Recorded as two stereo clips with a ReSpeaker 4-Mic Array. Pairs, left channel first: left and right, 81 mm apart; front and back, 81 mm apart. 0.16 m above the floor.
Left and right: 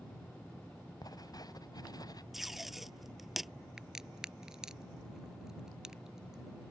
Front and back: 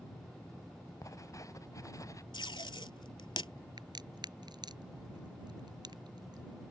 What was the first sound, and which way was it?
Writing, 50° left.